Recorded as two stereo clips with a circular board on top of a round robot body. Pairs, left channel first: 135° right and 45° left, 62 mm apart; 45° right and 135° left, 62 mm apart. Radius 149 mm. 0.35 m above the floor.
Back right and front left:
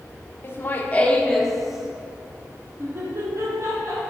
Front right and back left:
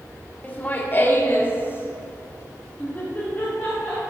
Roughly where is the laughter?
Right.